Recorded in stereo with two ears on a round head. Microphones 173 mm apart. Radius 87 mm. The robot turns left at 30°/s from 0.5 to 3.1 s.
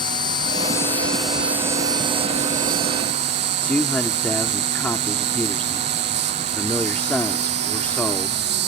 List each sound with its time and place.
0.0 s an insect: 20° left; by 8.7 s 55° right
3.6 s a man speaking: 10° left (ahead or behind)